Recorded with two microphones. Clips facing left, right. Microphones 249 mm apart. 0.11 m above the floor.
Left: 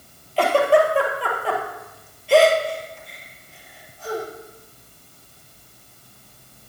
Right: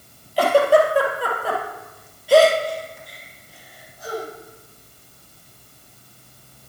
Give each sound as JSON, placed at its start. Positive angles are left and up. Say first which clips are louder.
{"t": 0.4, "sound": "a giggle", "louder": "right 1 dB", "side_deg": -10, "distance_m": 1.6}